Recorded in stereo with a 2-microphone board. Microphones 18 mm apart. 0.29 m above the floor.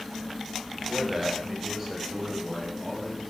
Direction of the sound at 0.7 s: 10° right (ahead or behind).